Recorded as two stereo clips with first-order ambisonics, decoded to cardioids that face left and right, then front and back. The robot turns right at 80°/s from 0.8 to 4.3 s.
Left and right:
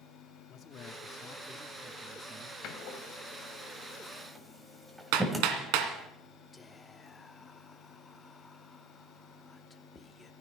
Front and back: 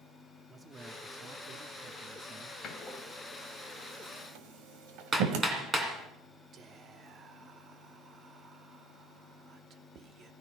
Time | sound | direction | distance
0.5 | a man speaking | 115° left | 0.9 m
2.6 | a door slam | 55° left | 1.8 m
5.1 | hammering | 105° right | 2 m
6.5 | whispering | 160° left | 0.8 m